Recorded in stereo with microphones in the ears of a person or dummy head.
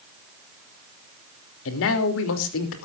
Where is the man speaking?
75° left (ahead or behind), 3 m.